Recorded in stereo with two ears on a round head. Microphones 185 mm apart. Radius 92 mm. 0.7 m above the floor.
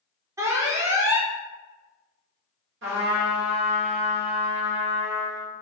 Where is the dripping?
I don't hear dripping.